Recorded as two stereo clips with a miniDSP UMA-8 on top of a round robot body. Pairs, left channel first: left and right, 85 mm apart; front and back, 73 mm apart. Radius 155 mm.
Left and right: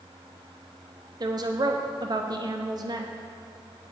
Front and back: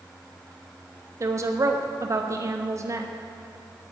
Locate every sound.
1.2 s a woman speaking: 130° right, 1.5 m